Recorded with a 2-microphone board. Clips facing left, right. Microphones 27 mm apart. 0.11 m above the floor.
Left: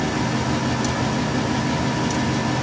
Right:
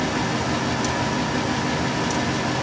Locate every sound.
Only background noise.